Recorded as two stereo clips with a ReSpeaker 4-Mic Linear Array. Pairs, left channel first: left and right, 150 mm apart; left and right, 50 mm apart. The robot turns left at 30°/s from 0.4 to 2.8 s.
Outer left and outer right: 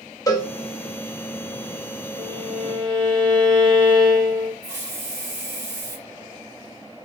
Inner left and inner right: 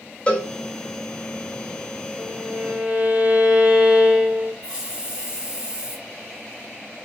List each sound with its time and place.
0.3 s a cowbell: 25° left (ahead or behind), 1.2 m; by 0.5 s 20° left (ahead or behind), 1.2 m
2.2 s a violin: 45° right (ahead or behind), 2.5 m; by 4.5 s 30° right (ahead or behind), 2.5 m
4.6 s a hiss: 15° right (ahead or behind), 1.6 m